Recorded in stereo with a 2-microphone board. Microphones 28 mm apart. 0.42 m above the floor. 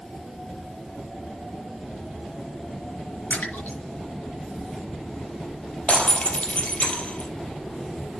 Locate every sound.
3.3 s a splash: 80° left, 6 m
5.9 s breaking glass: 45° left (ahead or behind), 3 m